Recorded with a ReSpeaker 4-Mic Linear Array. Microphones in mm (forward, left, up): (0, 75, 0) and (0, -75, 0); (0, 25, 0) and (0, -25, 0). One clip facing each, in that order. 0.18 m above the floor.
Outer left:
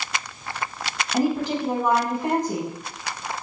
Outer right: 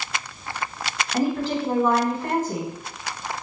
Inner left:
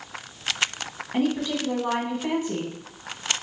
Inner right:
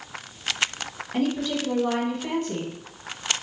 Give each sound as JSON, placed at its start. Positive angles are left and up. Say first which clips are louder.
{"t": 1.1, "sound": "a woman speaking", "louder": "outer left 1 dB, inner left 1 dB", "side_deg": 15, "distance_m": 1.1}